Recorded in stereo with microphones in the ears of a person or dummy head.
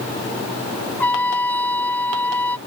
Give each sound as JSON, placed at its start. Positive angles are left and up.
{"t": 1.0, "sound": "a trumpet", "side_deg": 10}